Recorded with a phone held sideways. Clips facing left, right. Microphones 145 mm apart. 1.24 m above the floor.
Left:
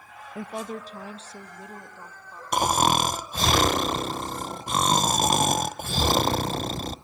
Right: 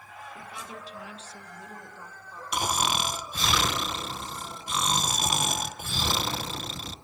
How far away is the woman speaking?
About 0.6 m.